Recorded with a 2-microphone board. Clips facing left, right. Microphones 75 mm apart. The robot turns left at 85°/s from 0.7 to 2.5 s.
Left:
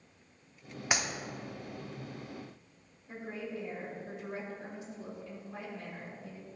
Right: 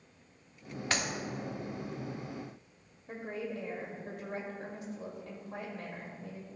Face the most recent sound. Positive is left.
turn(degrees=-60)  # may be behind; listen again after turning